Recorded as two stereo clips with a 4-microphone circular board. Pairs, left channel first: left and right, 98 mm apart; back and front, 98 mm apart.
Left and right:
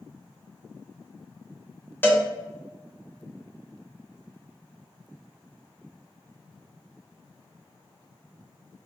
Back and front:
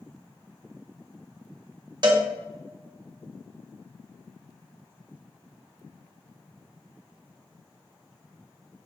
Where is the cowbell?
25° left, 0.7 m.